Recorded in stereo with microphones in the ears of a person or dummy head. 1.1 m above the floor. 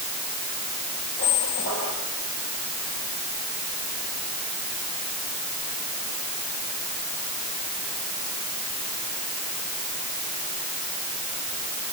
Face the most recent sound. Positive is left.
turn(degrees=30)  # may be behind; listen again after turning